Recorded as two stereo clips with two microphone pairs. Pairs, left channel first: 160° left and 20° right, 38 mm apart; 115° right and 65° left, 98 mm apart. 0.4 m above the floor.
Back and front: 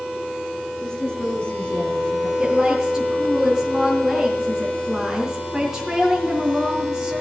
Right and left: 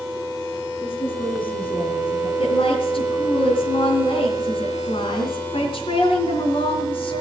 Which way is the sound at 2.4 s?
95° right.